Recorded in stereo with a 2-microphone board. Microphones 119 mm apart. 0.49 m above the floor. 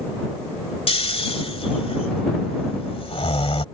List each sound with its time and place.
0.9 s snoring: 55° left (ahead or behind)